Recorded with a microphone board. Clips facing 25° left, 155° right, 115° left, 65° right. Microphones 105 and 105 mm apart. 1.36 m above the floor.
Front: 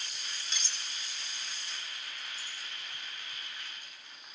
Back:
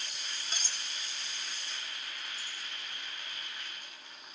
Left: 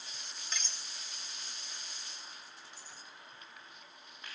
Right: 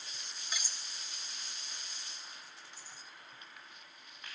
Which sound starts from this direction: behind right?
Cutlery clinking, at 0.5 s.